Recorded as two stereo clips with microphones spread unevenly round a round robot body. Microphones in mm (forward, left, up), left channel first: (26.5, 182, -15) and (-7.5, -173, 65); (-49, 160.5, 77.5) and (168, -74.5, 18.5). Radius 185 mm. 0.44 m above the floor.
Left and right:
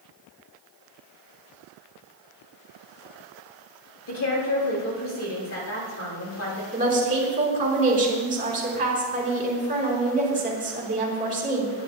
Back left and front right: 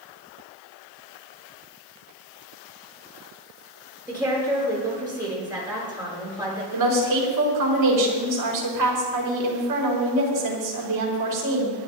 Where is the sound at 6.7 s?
25° right, 5.5 m.